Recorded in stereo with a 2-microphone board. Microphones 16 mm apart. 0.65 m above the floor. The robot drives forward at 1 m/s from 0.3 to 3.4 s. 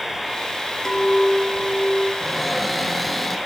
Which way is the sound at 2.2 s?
15° right (ahead or behind).